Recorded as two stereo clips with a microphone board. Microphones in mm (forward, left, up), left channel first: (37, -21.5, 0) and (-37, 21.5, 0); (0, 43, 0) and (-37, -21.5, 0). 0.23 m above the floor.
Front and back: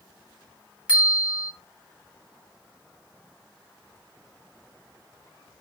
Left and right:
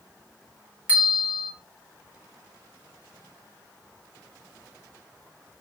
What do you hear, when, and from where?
0.9 s a bell: 155° right, 1.3 m